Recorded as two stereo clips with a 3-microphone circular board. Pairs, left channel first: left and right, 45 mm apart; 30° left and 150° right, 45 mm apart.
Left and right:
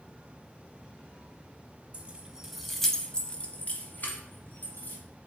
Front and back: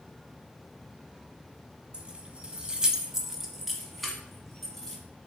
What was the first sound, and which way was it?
Keys jangling, 115° right.